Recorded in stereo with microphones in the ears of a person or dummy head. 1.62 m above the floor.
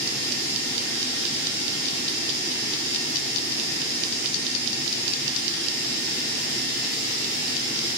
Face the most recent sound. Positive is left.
turn(degrees=-60)  # may be behind; listen again after turning